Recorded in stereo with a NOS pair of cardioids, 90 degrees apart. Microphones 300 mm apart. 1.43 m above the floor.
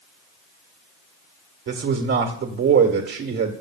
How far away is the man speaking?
About 1.6 m.